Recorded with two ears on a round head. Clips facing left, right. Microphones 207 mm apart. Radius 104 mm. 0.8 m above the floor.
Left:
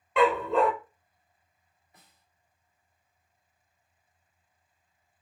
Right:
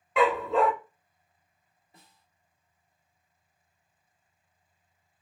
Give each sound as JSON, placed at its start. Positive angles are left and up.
{"t": 0.2, "sound": "a dog barking", "side_deg": 0, "distance_m": 0.6}
{"t": 1.9, "sound": "a snare drum", "side_deg": -25, "distance_m": 1.9}